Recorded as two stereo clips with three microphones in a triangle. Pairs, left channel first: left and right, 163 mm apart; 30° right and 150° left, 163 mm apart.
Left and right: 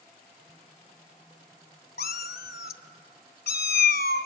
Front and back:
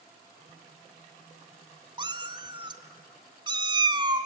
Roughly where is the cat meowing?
Left.